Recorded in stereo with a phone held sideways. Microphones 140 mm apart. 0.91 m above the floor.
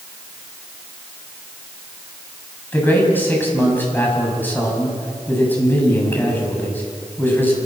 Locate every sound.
2.7 s a man speaking: 15° left (ahead or behind), 6.5 m